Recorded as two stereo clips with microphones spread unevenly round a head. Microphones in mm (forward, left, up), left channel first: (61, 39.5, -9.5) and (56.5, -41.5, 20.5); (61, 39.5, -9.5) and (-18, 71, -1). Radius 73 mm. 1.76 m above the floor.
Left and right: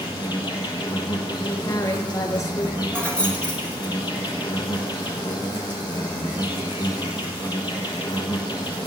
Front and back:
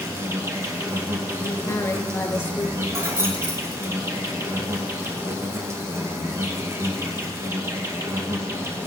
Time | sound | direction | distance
0.0 | an insect | 135° left | 1.1 m
1.4 | a woman speaking | 40° left | 2.5 m
2.9 | keys jangling | 170° right | 1.2 m